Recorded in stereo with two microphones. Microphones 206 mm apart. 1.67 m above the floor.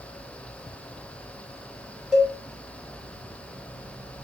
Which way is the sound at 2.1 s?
Centre (ahead or behind).